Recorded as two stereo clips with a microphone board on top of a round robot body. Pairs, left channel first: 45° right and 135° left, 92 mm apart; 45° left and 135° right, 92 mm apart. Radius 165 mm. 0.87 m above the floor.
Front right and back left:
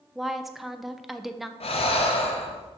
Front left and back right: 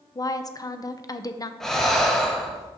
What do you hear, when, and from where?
0.1 s a woman speaking: 50° left, 0.7 m
1.6 s breathing: 40° right, 0.7 m